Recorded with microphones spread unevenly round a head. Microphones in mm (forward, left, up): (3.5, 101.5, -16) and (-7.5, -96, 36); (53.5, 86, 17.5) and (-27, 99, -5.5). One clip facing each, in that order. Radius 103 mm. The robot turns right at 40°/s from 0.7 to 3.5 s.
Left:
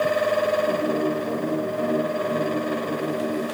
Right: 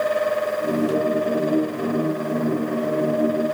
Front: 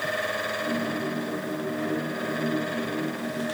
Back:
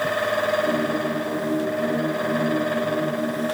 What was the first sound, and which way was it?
Only background noise.